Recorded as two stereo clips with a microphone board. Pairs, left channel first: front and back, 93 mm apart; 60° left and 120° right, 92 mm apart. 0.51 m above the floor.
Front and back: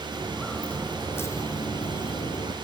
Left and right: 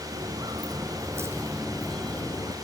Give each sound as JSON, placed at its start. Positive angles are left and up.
{"t": 0.1, "sound": "footsteps", "azimuth_deg": -90, "distance_m": 1.7}